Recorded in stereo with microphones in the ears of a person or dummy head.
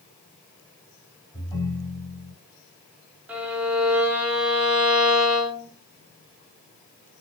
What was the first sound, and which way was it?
A ringtone, 10° left (ahead or behind).